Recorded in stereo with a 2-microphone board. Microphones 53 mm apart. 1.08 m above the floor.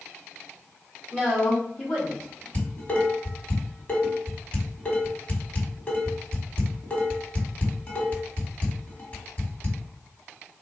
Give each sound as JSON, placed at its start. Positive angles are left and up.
{"t": 1.1, "sound": "a woman speaking", "side_deg": 30, "distance_m": 1.7}
{"t": 2.5, "sound": "dishes clattering", "side_deg": 30, "distance_m": 1.4}